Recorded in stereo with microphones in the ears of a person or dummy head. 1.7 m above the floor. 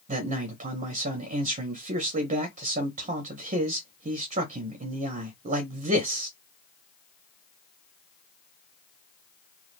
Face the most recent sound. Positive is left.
turn(degrees=-40)  # may be behind; listen again after turning